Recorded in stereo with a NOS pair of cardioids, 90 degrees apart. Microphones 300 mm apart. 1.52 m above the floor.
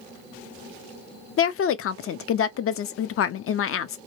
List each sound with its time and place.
1.4 s a woman speaking: 50° left, 0.5 m